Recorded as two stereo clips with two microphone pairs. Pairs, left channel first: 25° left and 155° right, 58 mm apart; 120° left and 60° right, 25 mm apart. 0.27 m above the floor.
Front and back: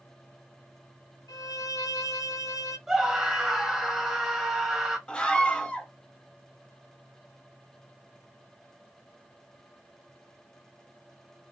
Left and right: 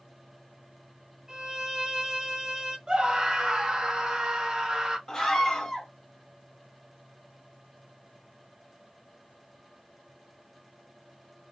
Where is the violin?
15° left, 1.3 m.